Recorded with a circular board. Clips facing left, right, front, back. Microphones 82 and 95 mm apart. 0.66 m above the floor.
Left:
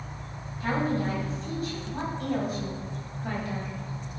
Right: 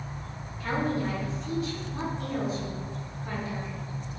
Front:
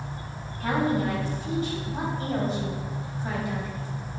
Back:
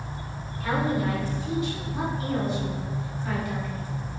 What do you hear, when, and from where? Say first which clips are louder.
0.6 s a woman speaking: left 1 dB, front 1 dB; 40° left, 4 m; by 3.8 s 65° left, 3.5 m